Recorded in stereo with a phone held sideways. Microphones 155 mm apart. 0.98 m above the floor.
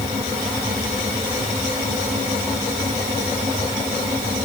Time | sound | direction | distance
0.0 | a fan | 50° right (ahead or behind) | ?